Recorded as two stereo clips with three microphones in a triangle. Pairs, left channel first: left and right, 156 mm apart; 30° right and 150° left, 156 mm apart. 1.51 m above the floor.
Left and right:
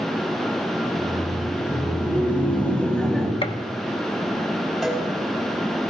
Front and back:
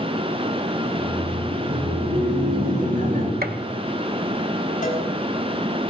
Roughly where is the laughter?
Behind left.